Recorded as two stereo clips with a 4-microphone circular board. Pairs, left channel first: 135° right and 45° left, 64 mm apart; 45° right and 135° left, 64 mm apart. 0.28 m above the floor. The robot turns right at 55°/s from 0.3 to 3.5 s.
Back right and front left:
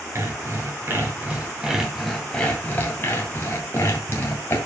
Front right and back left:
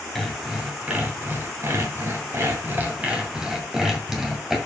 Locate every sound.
0.1 s sawing: 40° left, 2 m; by 4.6 s 145° right, 2 m